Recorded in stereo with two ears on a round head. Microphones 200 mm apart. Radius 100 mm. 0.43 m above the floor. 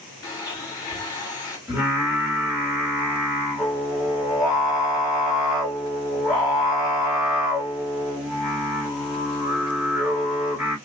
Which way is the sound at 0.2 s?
15° left (ahead or behind).